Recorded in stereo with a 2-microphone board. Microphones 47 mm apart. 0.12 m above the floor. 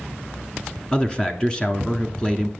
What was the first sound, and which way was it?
A man speaking, 20° left (ahead or behind).